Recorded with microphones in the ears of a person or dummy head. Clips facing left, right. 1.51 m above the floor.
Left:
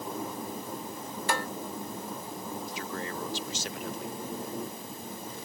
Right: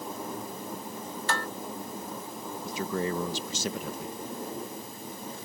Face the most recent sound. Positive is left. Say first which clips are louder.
# right 6 dB
turn(degrees=-80)